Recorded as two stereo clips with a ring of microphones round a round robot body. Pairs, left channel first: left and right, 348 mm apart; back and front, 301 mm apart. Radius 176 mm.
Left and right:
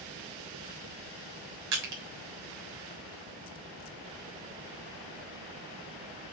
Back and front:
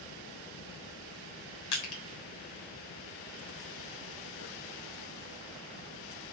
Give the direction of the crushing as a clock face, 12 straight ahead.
5 o'clock.